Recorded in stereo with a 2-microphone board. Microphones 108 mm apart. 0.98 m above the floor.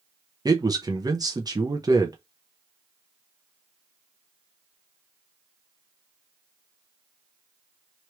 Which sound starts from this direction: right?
A man speaking, at 0.5 s.